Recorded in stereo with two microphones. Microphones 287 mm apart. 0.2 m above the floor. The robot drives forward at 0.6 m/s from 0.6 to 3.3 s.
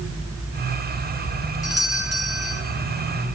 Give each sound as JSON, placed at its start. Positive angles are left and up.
{"t": 1.6, "sound": "a doorbell", "side_deg": -55, "distance_m": 2.5}